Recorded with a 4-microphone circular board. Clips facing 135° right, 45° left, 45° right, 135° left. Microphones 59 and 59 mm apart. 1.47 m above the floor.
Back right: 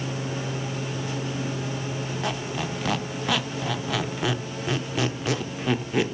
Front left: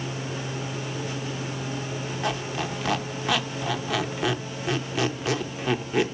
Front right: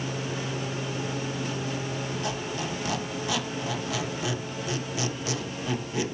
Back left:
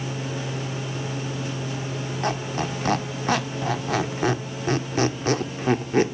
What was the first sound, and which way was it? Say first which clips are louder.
A squeak: front left 2 dB, back left 5 dB; 135° left.